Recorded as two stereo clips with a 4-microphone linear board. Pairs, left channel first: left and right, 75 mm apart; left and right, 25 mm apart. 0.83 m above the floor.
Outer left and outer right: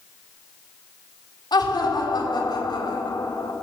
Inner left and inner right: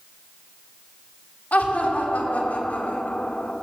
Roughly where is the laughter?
Left.